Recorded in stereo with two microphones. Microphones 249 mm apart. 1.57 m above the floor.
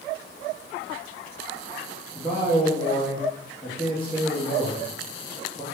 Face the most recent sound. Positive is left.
turn(degrees=5)  # may be behind; listen again after turning